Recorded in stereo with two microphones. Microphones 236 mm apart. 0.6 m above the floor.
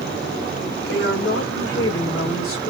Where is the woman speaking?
55° left (ahead or behind), 2 m; by 2.7 s 60° left (ahead or behind), 2 m.